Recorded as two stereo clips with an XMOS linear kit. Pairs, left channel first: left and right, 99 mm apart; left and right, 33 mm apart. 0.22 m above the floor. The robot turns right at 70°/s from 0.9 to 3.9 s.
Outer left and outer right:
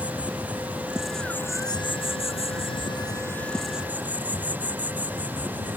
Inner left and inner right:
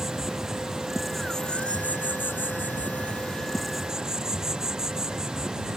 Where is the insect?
15° right; by 5.8 s 165° right.